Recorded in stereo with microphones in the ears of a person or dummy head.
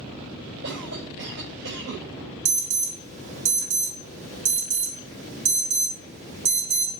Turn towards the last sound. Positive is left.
turn(degrees=-40)  # may be behind; listen again after turning